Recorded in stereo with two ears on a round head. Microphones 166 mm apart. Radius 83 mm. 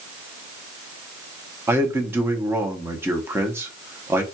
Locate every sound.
1.7 s a man speaking: 15° right (ahead or behind), 0.8 m